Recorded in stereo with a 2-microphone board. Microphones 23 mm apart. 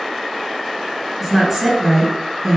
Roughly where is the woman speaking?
Centre.